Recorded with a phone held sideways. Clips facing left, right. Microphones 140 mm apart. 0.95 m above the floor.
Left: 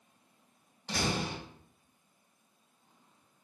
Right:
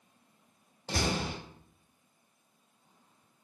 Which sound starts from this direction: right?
A door slam, at 0.9 s.